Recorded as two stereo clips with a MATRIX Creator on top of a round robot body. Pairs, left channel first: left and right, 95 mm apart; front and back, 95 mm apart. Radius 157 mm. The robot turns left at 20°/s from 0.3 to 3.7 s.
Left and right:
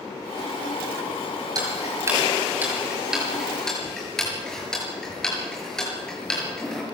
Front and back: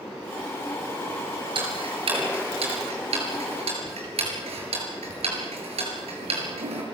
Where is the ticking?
140° right, 5.5 m; by 6.8 s 175° left, 5.5 m.